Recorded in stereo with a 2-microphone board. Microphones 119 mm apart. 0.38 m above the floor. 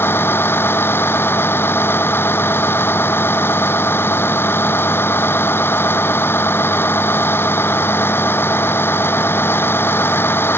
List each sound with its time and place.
0.0 s a vehicle: 15° left (ahead or behind)